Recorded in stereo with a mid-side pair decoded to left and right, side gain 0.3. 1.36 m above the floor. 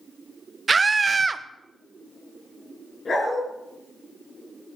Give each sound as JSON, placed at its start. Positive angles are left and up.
{"t": 0.7, "sound": "a scream", "azimuth_deg": -40, "distance_m": 1.1}
{"t": 3.0, "sound": "a dog barking", "azimuth_deg": 60, "distance_m": 5.5}